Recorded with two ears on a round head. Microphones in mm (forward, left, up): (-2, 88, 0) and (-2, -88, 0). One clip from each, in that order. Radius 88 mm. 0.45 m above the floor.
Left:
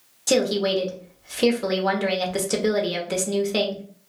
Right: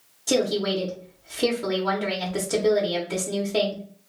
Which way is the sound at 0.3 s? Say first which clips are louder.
Left 2 dB; 25° left (ahead or behind).